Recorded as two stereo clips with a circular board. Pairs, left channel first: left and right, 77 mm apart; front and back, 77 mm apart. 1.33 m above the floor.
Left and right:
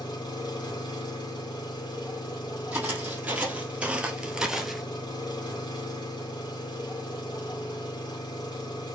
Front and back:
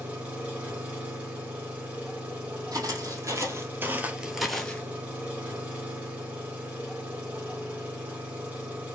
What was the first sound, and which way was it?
An engine running, 105° left.